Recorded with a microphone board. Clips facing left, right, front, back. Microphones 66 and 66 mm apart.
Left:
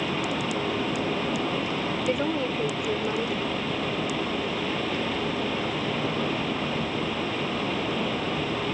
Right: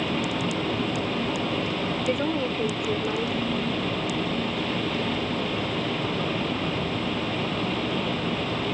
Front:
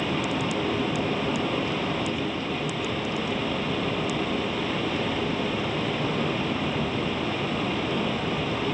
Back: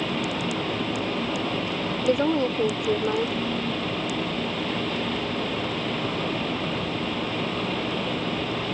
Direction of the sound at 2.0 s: Straight behind.